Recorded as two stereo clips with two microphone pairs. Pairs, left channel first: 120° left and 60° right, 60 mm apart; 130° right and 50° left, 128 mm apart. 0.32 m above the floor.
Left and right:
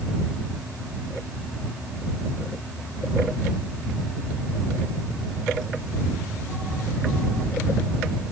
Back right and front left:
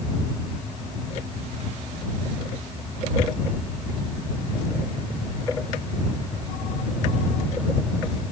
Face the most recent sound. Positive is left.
No sound to turn to.